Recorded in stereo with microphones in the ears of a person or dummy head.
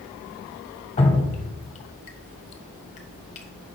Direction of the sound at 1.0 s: 40° left (ahead or behind).